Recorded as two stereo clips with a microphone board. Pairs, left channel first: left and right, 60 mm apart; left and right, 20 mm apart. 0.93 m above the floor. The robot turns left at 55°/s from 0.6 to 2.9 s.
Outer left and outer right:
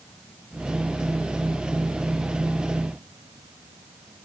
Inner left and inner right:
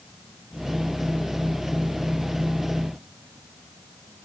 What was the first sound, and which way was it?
An insect, 20° left.